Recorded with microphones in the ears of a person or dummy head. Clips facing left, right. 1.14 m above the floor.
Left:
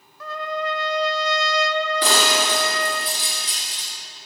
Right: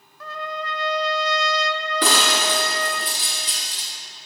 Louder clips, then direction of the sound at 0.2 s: Left 4 dB; 75° left (ahead or behind).